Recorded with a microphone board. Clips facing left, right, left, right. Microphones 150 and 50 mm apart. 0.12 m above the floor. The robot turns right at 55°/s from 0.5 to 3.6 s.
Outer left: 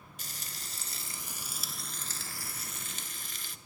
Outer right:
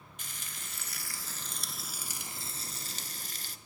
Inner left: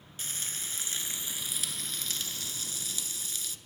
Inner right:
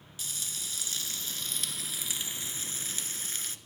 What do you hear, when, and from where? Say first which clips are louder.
0.2 s frying: outer left 1 dB, inner left 1 dB; 115° left, 0.6 m; by 3.6 s 80° right, 0.6 m